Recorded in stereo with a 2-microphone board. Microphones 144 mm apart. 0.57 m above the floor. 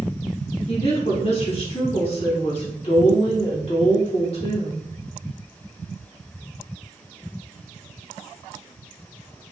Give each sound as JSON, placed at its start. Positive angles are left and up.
{"t": 0.7, "sound": "a woman speaking", "side_deg": 50, "distance_m": 1.6}